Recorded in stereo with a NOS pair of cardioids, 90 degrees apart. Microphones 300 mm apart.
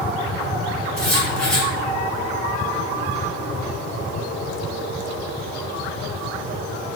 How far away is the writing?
About 1.9 m.